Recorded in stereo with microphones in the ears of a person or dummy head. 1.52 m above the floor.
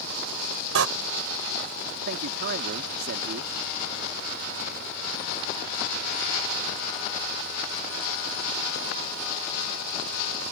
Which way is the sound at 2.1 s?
60° right (ahead or behind).